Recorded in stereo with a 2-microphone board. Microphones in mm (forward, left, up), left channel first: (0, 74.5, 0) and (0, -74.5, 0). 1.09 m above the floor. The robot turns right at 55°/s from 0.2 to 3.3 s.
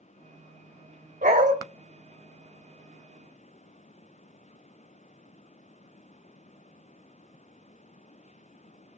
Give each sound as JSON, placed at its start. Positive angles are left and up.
{"t": 1.2, "sound": "a dog barking", "side_deg": -75, "distance_m": 2.0}